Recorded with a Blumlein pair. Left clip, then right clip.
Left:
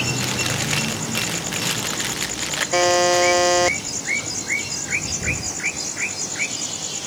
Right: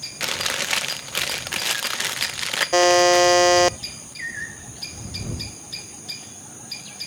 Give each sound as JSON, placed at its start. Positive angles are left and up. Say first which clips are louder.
{"t": 0.2, "sound": "chewing", "louder": "left 1 dB", "azimuth_deg": -5}
{"t": 2.7, "sound": "a buzzer", "louder": "right 2 dB", "azimuth_deg": -5}